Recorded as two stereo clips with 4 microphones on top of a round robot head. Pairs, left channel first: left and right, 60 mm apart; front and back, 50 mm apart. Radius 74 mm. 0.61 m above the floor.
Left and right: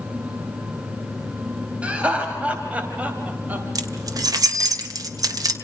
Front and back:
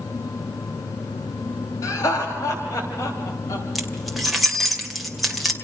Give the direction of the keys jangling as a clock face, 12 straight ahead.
3 o'clock.